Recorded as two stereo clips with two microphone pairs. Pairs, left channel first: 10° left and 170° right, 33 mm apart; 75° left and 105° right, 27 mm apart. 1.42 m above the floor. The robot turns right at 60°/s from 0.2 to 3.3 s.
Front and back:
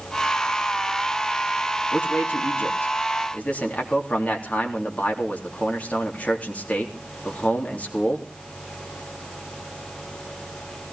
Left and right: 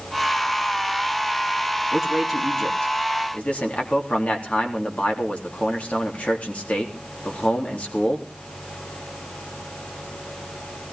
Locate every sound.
1.9 s a man speaking: 30° right, 3.5 m; by 8.3 s 50° left, 3.5 m